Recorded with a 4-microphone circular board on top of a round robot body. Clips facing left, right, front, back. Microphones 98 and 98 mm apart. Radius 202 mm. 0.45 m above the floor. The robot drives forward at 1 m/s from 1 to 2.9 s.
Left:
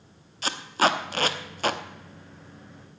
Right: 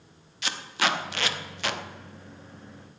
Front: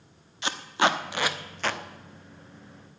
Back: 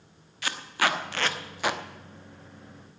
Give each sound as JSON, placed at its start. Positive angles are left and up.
{"t": 0.4, "sound": "tape being pulled", "azimuth_deg": 60, "distance_m": 1.3}